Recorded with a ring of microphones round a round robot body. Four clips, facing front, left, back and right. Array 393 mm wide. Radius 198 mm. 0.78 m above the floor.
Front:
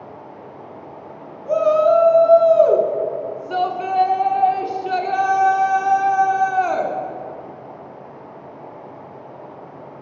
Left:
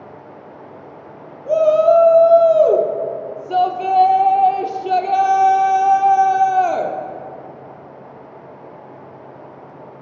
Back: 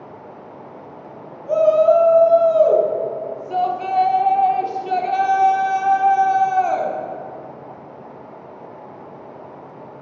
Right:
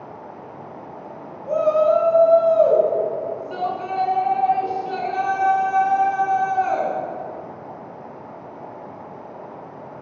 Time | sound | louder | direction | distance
0.0 | running water | right 1 dB, front 1 dB | 100° right | 2.5 m
1.5 | a shout | left 5 dB, back 1 dB | 70° left | 1.6 m